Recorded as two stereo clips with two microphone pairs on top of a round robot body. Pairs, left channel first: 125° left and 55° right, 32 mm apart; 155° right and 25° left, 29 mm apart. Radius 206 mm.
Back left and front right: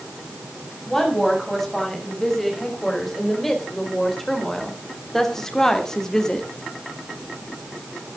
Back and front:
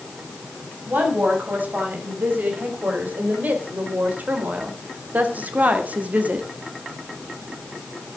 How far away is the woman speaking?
About 5.5 m.